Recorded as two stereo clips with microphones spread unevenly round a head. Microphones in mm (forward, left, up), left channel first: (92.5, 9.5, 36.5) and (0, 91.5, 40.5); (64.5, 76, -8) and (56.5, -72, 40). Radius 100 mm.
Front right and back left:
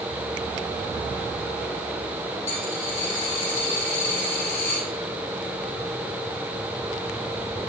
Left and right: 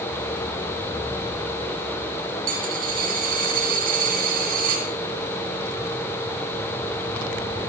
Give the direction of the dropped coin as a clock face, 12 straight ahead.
3 o'clock.